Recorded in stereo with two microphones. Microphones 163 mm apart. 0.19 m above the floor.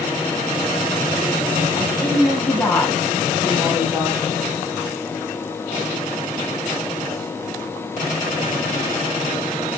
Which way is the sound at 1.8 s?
25° left (ahead or behind).